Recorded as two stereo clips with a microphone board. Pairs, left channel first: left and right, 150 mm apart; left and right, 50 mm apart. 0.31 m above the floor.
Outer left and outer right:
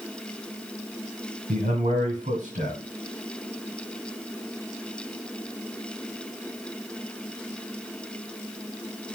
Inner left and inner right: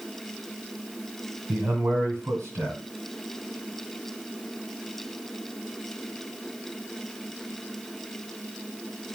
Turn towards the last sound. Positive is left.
turn(degrees=-70)  # may be behind; listen again after turning